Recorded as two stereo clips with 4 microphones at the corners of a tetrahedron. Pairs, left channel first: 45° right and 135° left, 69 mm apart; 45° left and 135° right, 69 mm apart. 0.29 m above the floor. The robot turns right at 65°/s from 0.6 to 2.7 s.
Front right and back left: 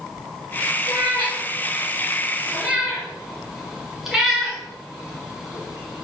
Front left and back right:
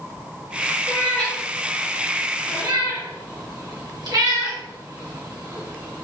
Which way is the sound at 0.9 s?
100° left.